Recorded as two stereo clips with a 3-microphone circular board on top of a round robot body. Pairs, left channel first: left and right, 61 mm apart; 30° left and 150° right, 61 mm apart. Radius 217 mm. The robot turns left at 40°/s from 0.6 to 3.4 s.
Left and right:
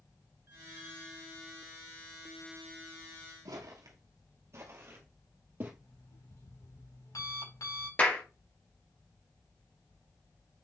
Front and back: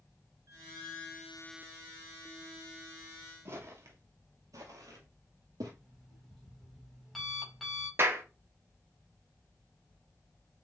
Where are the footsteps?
105° right, 1.7 m; by 5.7 s 150° right, 2 m.